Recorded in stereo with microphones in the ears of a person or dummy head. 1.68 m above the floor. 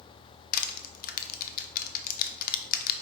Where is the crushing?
50° left (ahead or behind), 0.8 m.